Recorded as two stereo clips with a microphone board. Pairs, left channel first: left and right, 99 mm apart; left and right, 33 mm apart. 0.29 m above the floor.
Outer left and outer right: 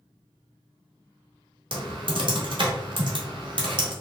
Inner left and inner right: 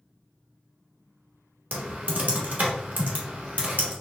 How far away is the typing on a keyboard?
About 1.0 m.